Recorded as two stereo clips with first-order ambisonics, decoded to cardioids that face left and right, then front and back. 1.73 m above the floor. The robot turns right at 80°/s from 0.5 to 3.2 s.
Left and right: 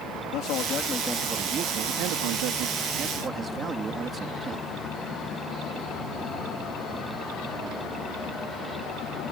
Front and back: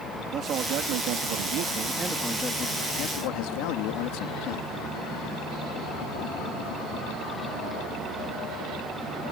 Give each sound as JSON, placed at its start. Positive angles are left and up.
{"t": 0.3, "sound": "a man speaking", "azimuth_deg": 125}